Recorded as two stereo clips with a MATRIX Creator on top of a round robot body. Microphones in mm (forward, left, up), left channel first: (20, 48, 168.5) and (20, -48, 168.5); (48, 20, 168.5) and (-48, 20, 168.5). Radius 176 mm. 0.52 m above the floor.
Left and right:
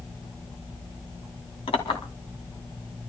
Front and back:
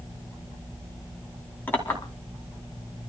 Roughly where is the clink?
Left.